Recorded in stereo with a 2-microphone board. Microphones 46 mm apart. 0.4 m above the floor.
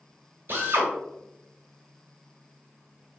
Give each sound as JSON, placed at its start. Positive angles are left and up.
{"t": 0.5, "sound": "a drill", "side_deg": -55, "distance_m": 1.0}